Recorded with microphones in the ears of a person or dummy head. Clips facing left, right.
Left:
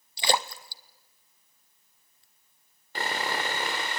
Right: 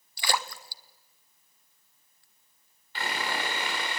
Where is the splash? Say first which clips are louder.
Left 4 dB; 25° left (ahead or behind), 0.6 m.